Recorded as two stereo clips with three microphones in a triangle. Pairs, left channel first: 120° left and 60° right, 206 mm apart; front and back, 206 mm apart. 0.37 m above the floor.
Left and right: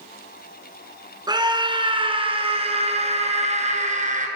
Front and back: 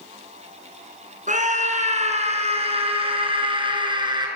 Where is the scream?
130° right, 4.5 m; by 4.3 s 110° right, 5.5 m.